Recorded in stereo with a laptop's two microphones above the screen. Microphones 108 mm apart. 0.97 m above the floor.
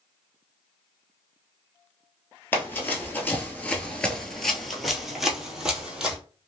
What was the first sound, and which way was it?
Running footsteps, 20° left (ahead or behind).